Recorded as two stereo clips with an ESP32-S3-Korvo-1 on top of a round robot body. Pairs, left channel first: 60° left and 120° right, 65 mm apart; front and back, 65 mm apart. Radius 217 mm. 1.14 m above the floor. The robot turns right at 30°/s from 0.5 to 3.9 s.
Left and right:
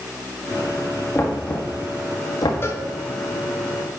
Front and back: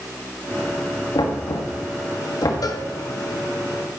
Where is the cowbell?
10° left, 1.3 m; by 2.9 s 20° left, 1.3 m.